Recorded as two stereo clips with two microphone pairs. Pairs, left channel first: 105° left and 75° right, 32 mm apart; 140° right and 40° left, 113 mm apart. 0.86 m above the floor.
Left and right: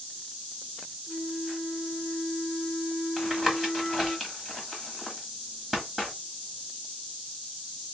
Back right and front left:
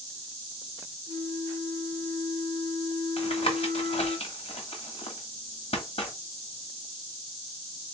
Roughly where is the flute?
Behind.